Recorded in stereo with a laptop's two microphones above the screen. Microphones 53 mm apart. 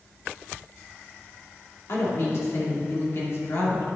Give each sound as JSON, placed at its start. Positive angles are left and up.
{"t": 1.9, "sound": "a woman speaking", "side_deg": 60, "distance_m": 2.5}